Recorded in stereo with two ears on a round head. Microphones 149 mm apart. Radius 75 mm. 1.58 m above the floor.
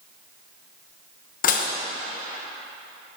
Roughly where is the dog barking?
I don't hear a dog barking.